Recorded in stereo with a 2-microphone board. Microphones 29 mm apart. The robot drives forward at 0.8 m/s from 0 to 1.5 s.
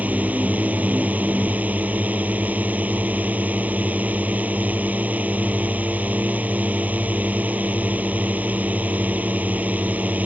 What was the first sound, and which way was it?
A drone, 60° right (ahead or behind).